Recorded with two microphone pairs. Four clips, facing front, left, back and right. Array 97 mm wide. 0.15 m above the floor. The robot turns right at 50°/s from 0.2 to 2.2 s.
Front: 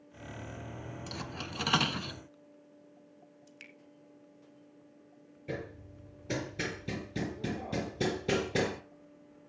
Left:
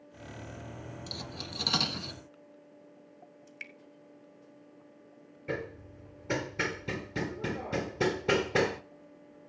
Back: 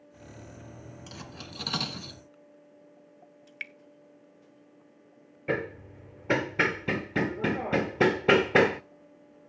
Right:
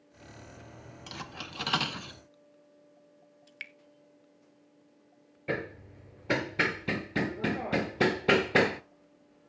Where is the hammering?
160° right, 0.7 m.